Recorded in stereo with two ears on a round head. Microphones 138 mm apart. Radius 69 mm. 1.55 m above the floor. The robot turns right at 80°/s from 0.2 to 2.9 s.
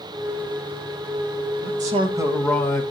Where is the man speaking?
65° right, 1.6 m; by 2.8 s 30° left, 1.6 m.